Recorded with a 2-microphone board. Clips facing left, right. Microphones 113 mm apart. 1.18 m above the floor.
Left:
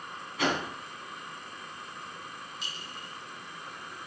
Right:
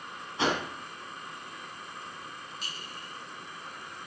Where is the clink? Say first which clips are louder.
Even; 50° right (ahead or behind), 6 m.